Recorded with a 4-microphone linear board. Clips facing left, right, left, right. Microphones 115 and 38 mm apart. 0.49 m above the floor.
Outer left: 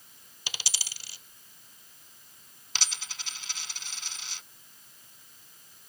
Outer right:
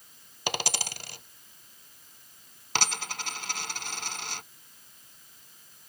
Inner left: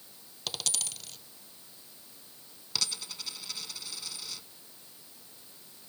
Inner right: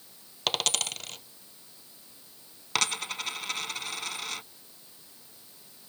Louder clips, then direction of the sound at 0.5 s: Outer right 11 dB, inner right 8 dB; 55° right (ahead or behind).